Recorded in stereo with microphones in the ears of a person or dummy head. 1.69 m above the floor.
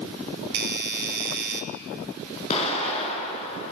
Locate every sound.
0.5 s a doorbell: 60° right (ahead or behind), 1.2 m
2.5 s an explosion: 40° left (ahead or behind), 4 m